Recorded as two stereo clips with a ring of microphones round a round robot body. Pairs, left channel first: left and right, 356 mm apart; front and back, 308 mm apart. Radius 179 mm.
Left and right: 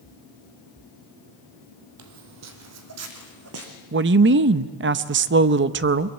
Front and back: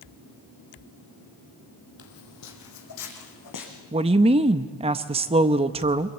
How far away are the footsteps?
About 1.7 m.